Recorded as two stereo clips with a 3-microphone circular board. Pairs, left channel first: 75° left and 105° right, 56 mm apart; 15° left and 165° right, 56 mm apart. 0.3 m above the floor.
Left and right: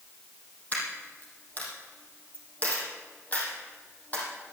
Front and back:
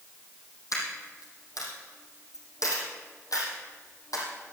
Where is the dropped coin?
15° left, 5 m.